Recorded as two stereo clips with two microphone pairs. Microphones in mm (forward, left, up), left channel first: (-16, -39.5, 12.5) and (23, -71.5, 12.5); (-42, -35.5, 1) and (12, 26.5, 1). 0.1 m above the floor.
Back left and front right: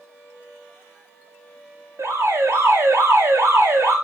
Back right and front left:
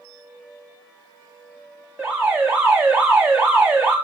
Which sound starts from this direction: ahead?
An alarm, at 2.0 s.